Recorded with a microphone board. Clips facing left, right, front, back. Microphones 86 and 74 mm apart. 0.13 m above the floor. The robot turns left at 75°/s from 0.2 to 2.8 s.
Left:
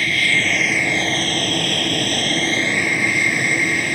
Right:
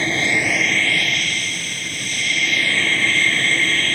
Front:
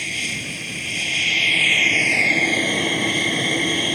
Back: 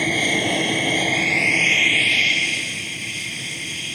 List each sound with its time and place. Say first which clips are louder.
0.0 s an aircraft: even, back 8 dB; 150° right; by 4.0 s 15° left